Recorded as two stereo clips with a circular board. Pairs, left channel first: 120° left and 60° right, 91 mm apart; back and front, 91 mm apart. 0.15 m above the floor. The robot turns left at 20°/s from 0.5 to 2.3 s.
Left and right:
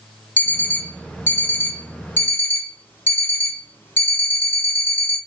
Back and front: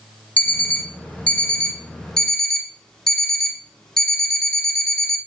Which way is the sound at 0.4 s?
145° left.